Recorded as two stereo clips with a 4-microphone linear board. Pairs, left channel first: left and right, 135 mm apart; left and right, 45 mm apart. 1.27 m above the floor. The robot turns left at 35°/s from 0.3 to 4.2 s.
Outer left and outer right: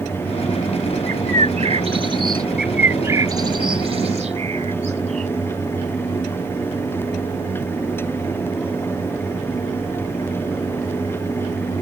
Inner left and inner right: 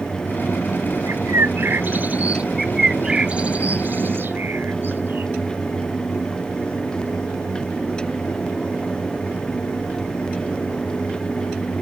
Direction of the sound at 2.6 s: 5° right (ahead or behind).